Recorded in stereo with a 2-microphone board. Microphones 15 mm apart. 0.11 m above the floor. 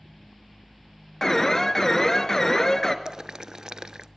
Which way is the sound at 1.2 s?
30° left (ahead or behind).